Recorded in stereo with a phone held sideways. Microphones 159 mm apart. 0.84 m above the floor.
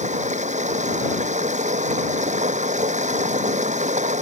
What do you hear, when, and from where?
0.0 s running water: 50° right (ahead or behind)